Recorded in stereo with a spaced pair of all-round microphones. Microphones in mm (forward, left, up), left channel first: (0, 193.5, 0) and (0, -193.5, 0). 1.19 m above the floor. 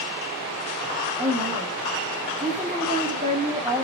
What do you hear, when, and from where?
1.2 s a woman speaking: 20° right (ahead or behind), 2 m